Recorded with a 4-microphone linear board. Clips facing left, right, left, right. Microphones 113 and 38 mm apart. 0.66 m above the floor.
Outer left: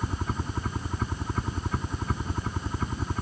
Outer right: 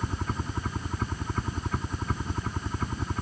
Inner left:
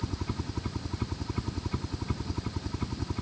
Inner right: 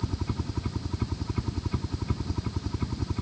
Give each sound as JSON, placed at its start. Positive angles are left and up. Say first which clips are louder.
{"t": 0.0, "sound": "a helicopter", "louder": "outer left 1 dB, inner right 2 dB", "side_deg": 0}